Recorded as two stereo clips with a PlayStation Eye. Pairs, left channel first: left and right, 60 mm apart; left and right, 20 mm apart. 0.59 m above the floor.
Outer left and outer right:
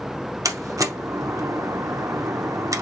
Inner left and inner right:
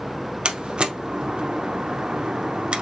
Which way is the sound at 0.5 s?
65° right (ahead or behind).